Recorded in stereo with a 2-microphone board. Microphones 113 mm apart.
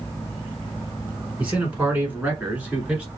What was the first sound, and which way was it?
A man speaking, 10° right (ahead or behind).